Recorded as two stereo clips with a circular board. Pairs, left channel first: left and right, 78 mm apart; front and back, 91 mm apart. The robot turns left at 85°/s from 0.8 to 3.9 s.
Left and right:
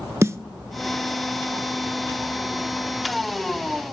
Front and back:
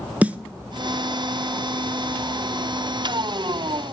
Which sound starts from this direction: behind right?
A snare drum, at 0.2 s.